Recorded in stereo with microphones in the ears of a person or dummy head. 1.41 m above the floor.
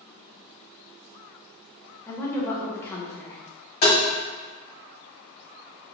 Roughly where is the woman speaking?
Centre.